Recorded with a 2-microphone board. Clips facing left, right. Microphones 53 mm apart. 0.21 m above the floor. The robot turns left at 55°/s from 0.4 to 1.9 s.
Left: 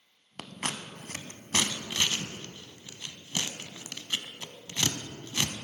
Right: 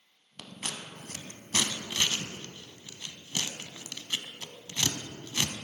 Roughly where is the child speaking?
No child speaking in this recording.